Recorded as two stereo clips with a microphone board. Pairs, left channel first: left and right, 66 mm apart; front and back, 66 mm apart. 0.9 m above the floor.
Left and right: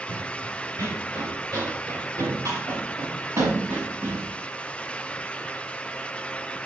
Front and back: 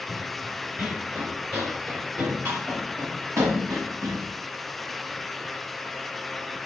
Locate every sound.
0.1 s running footsteps: 105° right, 3.5 m; by 4.2 s 140° right, 6 m